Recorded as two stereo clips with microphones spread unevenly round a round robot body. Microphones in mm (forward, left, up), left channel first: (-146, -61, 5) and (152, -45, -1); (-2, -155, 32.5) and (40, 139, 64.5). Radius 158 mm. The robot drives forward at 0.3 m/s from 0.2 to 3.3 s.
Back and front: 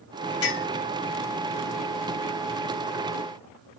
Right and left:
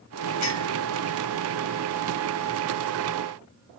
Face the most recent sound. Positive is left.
turn(degrees=-145)